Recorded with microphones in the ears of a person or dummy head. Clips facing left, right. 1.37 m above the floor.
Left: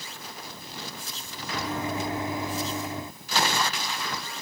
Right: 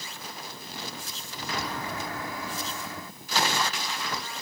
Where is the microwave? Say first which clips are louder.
Left 4 dB; 20° left (ahead or behind).